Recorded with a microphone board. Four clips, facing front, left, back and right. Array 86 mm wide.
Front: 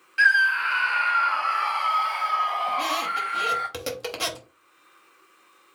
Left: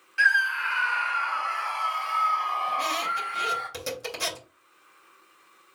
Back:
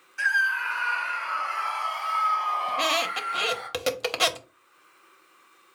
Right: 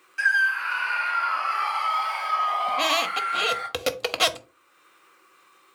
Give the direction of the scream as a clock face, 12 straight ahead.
11 o'clock.